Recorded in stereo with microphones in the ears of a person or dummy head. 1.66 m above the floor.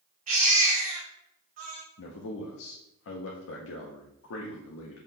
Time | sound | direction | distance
0.3 | a baby crying | 40° right (ahead or behind) | 1.2 m
2.0 | a man speaking | 75° left (ahead or behind) | 0.6 m